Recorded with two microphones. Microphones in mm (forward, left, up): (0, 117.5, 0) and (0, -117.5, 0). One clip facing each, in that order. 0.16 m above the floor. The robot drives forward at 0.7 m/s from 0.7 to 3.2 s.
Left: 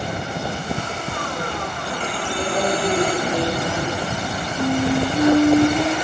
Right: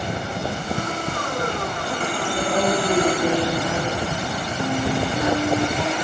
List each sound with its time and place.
2.3 s a woman speaking: 45° right (ahead or behind), 4 m; by 4.2 s 50° right (ahead or behind), 3.5 m
4.6 s a flute: 50° left (ahead or behind), 2 m